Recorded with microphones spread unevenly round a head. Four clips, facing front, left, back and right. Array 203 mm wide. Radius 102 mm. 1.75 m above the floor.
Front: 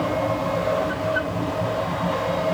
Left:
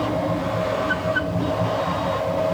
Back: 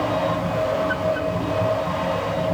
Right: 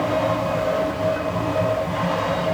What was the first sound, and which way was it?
Only background noise.